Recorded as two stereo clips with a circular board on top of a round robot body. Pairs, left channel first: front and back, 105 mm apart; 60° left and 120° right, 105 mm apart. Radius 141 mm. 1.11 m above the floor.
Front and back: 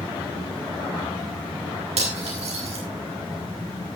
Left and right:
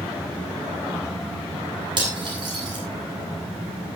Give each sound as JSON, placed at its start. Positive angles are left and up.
{"t": 2.0, "sound": "cutlery clinking", "azimuth_deg": -165, "distance_m": 7.5}